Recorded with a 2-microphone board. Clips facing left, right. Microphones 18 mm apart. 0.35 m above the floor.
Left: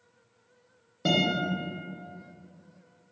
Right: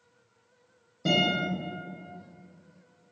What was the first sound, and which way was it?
A guitar, 35° left (ahead or behind).